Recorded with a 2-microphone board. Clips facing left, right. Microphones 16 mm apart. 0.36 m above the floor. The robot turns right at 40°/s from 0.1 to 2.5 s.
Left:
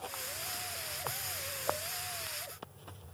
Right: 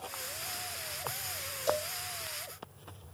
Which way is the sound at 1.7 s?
65° right (ahead or behind).